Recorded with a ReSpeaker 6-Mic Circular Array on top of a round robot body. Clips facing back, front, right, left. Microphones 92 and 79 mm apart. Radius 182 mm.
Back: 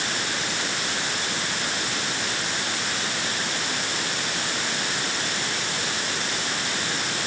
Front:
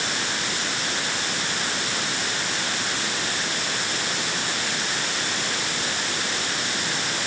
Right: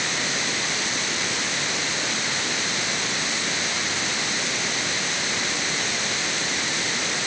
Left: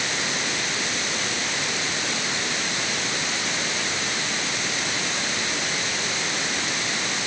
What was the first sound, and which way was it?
Only background noise.